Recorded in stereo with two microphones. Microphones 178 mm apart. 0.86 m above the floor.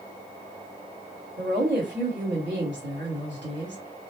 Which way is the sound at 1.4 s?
75° right (ahead or behind).